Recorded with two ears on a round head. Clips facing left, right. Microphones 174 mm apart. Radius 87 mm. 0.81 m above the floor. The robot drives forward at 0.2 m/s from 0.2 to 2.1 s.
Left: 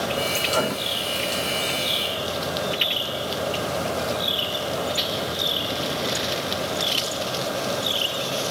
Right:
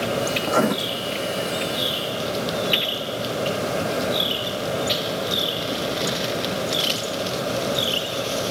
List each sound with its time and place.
0.4 s writing: 65° right (ahead or behind), 0.8 m; by 0.8 s 70° right (ahead or behind), 0.7 m